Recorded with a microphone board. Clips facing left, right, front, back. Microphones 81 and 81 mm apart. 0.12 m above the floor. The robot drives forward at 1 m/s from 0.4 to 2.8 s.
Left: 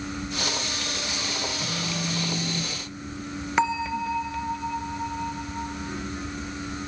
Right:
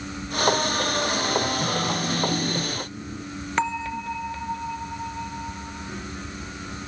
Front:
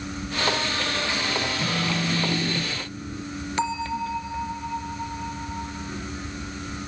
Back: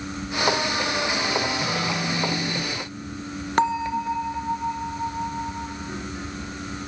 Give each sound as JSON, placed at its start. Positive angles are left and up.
{"t": 1.6, "sound": "a phone buzzing", "azimuth_deg": -50, "distance_m": 3.0}
{"t": 3.6, "sound": "a bell", "azimuth_deg": 175, "distance_m": 1.0}